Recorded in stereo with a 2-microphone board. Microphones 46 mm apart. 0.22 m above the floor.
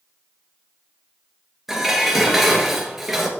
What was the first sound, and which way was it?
Dishes clattering, 5° right (ahead or behind).